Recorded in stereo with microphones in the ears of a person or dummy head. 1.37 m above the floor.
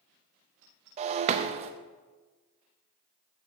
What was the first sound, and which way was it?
Breaking glass, 35° right (ahead or behind).